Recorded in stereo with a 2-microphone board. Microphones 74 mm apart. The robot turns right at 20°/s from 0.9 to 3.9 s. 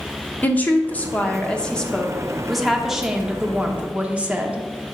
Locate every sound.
0.4 s a woman speaking: 145° left, 0.8 m; by 4.7 s 155° right, 0.8 m